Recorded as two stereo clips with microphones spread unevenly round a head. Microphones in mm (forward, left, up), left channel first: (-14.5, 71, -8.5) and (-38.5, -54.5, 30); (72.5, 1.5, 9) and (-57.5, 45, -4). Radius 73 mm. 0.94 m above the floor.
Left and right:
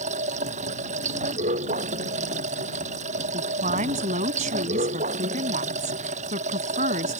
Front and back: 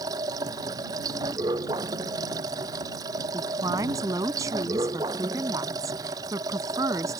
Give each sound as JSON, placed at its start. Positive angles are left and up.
{"t": 0.0, "sound": "running water", "azimuth_deg": -130}
{"t": 3.3, "sound": "a woman speaking", "azimuth_deg": -125}